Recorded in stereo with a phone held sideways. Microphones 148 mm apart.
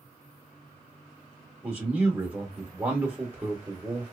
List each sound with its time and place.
1.6 s a man speaking: 10° right (ahead or behind), 1.0 m